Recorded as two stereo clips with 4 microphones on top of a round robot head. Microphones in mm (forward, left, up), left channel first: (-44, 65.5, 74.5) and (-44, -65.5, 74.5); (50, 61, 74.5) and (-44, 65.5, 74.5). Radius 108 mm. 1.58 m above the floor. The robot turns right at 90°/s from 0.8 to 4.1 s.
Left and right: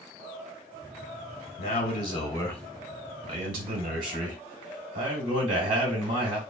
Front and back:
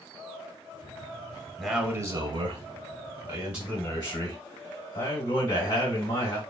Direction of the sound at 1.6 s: 80° left.